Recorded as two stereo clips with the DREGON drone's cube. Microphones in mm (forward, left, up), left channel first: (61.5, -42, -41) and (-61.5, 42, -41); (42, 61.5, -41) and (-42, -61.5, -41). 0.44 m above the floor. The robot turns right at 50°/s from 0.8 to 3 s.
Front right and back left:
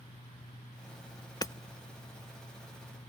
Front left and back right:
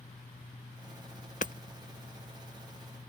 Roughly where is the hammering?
Ahead left.